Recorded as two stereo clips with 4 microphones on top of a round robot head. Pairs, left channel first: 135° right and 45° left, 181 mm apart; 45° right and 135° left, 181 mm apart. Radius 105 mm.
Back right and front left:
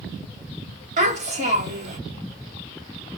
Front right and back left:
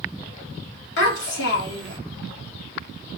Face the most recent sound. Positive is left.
turn(degrees=-10)